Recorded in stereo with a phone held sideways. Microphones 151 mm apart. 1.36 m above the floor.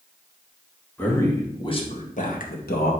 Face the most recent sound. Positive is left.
turn(degrees=85)